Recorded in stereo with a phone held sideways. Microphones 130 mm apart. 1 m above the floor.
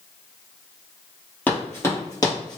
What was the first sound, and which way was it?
Running footsteps, 15° left (ahead or behind).